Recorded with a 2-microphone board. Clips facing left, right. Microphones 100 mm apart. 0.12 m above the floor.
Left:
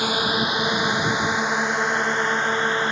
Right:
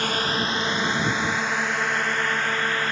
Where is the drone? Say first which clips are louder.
Left 2 dB; 10° left (ahead or behind); by 2.9 s 20° left (ahead or behind).